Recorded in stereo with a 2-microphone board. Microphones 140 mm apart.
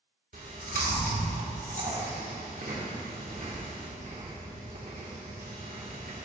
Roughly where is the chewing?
Right.